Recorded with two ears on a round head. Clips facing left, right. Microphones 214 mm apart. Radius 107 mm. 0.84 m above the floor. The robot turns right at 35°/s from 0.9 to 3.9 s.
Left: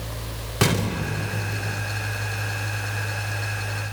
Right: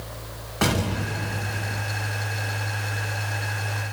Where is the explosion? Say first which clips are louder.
Left 1 dB; 45° left, 4 m; by 1.9 s 80° left, 4 m.